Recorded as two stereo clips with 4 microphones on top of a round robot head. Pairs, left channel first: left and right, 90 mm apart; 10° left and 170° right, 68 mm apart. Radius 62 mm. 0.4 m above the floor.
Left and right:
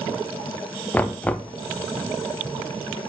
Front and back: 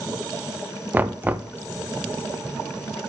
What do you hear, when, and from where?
0.9 s knocking: 155° left, 0.6 m